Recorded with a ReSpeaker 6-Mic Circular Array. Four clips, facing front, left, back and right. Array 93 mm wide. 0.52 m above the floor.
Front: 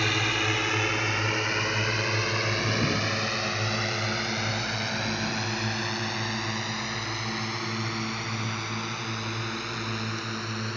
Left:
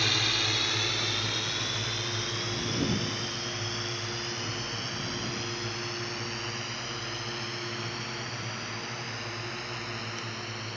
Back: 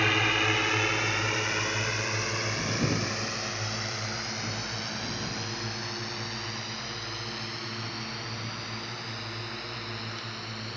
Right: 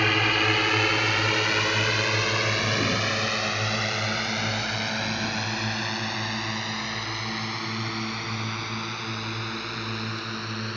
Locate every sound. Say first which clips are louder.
0.0 s a drone: right 9 dB, back 1 dB; 105° right; by 10.8 s 55° right